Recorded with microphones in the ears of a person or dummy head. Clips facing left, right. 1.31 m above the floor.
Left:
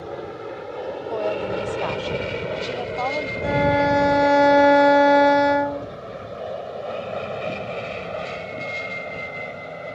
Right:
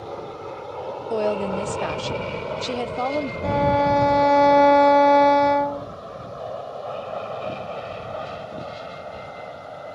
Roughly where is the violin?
Centre.